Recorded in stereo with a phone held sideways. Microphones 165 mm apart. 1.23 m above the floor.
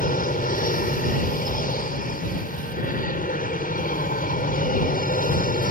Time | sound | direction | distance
0.0 | an aircraft | 55° left (ahead or behind) | ?